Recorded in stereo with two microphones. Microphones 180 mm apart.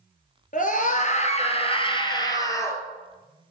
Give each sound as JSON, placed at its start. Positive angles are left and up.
{"t": 0.5, "sound": "a scream", "side_deg": 50, "distance_m": 2.0}